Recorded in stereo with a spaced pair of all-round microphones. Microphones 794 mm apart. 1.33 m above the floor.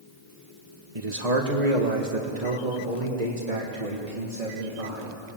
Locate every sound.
0.9 s a man speaking: 45° right (ahead or behind), 1.6 m; by 5.1 s 80° right, 3.5 m